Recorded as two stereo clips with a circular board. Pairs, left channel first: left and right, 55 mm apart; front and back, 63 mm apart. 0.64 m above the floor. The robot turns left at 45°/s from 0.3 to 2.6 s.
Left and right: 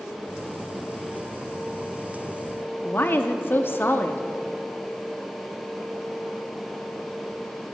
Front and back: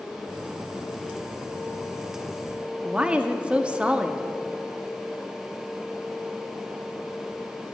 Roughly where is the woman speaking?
Behind left.